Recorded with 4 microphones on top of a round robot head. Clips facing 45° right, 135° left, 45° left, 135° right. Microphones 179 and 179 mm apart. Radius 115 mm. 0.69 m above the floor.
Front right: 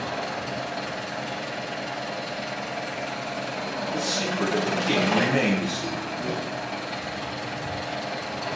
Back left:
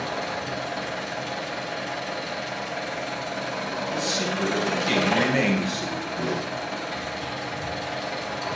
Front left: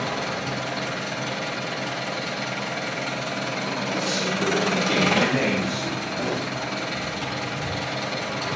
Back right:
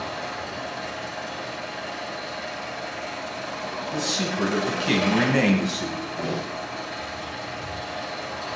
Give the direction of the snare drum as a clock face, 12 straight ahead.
8 o'clock.